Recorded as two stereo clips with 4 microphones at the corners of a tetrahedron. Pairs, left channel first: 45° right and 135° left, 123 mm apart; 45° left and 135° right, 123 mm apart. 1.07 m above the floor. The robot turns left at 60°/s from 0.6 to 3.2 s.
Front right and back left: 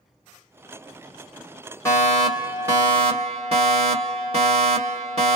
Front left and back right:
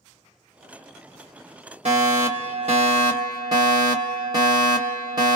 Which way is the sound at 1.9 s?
110° right.